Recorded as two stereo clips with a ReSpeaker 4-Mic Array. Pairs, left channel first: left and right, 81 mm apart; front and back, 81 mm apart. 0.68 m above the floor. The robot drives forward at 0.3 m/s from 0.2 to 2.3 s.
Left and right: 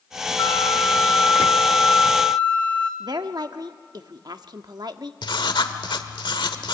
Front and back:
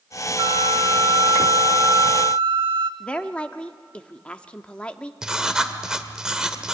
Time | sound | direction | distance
0.4 | a flute | 145° left | 0.7 m
3.0 | a woman speaking | 75° right | 1.0 m
5.2 | writing | 100° left | 1.4 m